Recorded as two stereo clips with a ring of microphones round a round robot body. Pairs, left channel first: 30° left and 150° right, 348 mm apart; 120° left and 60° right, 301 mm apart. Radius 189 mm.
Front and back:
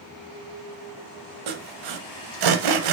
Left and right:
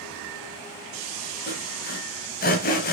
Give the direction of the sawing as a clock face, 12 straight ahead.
6 o'clock.